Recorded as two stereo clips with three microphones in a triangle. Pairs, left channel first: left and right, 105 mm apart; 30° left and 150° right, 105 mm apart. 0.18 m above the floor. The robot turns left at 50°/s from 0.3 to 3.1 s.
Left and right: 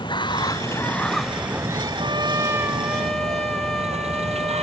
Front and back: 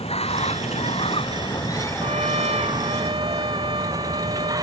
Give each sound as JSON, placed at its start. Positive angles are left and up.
{"t": 0.0, "sound": "running water", "azimuth_deg": 45}
{"t": 2.0, "sound": "a trumpet", "azimuth_deg": -130}